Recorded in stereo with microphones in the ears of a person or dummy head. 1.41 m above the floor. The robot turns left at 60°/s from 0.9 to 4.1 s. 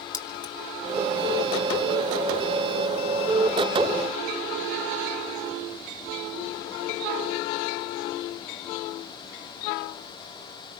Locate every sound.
0.1 s keys jangling: 25° left (ahead or behind), 0.8 m